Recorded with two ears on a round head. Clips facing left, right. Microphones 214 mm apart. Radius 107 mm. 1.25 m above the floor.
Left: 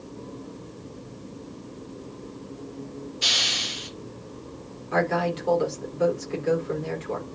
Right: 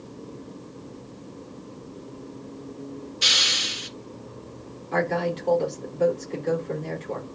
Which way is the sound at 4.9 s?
5° left (ahead or behind).